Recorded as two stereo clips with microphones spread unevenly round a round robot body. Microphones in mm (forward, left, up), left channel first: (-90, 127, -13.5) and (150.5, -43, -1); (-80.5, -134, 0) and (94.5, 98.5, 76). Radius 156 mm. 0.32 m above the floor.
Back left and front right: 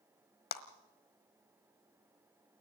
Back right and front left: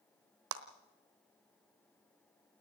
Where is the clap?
95° left, 1.4 m.